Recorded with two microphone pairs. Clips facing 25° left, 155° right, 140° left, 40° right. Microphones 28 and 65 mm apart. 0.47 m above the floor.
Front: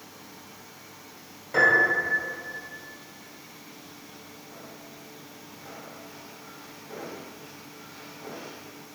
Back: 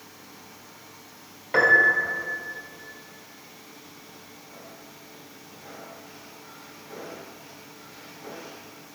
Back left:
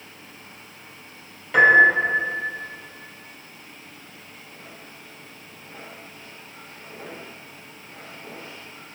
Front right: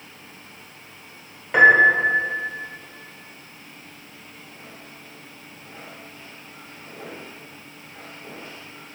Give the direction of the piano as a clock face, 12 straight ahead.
4 o'clock.